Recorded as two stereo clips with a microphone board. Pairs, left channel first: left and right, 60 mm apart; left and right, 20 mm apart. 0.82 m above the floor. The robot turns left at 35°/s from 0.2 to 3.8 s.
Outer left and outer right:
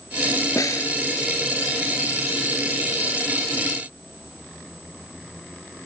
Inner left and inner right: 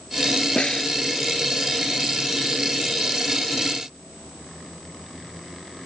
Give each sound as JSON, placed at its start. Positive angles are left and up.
{"t": 0.6, "sound": "a snare drum", "side_deg": 75}